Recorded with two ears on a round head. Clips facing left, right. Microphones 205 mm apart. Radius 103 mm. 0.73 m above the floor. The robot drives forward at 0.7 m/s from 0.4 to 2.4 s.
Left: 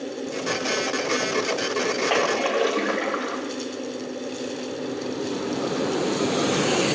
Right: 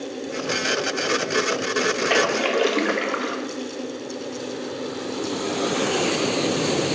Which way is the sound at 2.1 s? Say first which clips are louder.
Right 2 dB; 25° right (ahead or behind).